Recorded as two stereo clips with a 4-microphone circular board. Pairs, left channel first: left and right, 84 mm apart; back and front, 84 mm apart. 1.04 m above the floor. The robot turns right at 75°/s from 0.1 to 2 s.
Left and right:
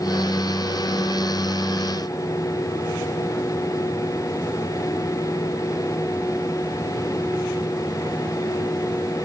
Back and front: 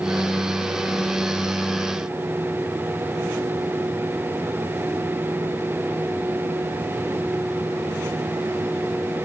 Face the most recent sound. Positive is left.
No sound to turn to.